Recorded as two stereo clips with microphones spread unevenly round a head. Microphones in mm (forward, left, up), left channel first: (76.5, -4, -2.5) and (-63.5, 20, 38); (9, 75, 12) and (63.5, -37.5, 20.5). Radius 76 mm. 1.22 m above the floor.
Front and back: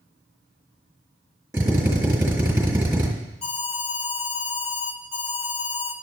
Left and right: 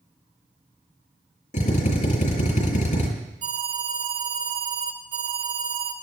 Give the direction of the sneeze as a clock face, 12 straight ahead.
I don't hear a sneeze.